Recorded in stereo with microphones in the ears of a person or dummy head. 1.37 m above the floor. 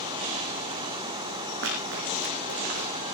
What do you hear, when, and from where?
1.6 s running footsteps: 70° right (ahead or behind), 6 m; by 3.0 s 60° right (ahead or behind), 6 m